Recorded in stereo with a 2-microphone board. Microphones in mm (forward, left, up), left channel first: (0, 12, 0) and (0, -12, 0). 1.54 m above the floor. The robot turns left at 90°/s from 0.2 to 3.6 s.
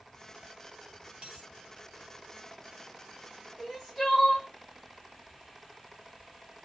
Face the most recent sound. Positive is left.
turn(degrees=10)  # may be behind; listen again after turning